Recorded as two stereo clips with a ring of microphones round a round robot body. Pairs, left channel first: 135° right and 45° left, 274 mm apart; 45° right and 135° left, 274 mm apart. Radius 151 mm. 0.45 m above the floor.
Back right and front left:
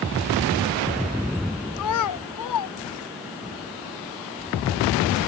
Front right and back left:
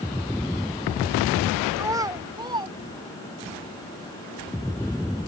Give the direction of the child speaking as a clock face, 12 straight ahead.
5 o'clock.